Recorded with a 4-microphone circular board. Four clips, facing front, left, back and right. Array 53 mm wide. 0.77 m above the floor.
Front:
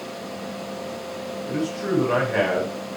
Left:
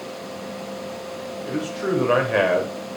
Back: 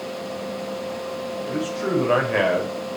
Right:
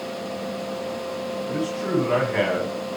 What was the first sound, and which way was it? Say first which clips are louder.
A man speaking: left 2 dB, even; 115° left.